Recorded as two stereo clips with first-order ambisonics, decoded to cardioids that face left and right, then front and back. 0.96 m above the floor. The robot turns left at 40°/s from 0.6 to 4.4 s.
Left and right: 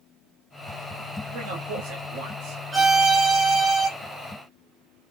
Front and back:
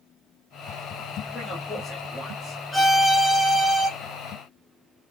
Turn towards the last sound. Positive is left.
turn(degrees=-140)